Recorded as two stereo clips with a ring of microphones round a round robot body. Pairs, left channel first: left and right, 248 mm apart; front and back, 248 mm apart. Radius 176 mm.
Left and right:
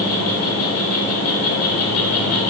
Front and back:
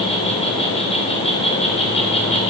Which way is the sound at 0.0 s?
65° left.